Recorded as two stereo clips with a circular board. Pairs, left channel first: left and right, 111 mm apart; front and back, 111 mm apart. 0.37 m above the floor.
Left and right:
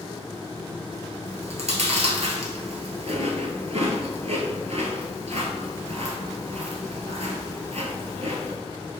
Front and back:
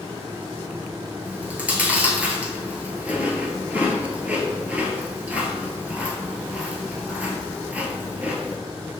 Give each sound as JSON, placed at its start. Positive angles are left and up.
{"t": 1.2, "sound": "chewing", "azimuth_deg": -105, "distance_m": 1.0}